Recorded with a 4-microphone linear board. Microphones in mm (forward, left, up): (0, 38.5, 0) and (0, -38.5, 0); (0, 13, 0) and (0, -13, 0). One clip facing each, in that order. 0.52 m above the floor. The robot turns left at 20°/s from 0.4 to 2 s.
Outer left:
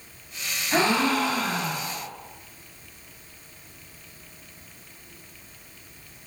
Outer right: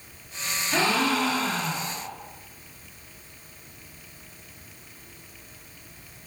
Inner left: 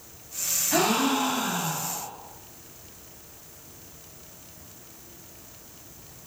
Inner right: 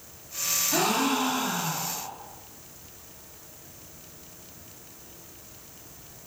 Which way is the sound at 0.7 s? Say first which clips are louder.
Outer left 2 dB, inner left 2 dB; 30° left (ahead or behind).